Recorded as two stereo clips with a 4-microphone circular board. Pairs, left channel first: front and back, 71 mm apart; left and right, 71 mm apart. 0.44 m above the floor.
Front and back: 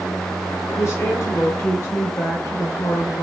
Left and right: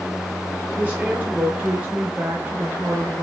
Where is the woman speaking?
30° right, 1.0 m.